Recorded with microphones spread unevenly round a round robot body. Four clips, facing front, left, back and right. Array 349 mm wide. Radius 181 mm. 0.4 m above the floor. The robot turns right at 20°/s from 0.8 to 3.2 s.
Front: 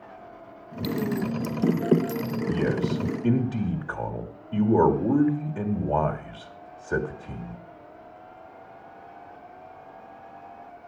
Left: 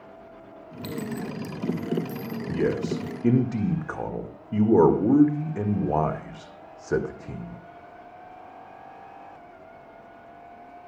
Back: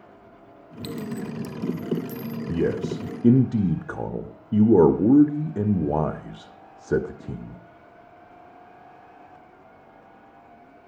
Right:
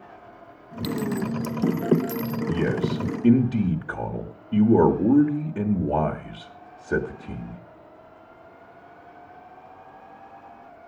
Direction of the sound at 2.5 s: 175° right.